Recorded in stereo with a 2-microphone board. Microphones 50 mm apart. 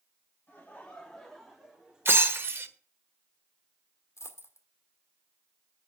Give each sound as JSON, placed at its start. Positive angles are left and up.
{"t": 0.5, "sound": "laughter", "side_deg": 30, "distance_m": 2.0}
{"t": 2.0, "sound": "breaking glass", "side_deg": -55, "distance_m": 1.3}
{"t": 4.2, "sound": "a dropped coin", "side_deg": 65, "distance_m": 1.6}